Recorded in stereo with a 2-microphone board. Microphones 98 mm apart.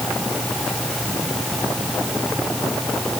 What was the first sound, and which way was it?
Only background noise.